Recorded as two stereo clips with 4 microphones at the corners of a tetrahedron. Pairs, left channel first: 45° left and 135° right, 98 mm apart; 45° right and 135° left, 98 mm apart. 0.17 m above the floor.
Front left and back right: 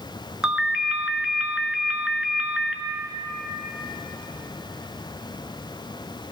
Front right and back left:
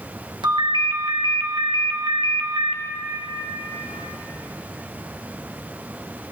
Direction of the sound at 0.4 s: 145° left.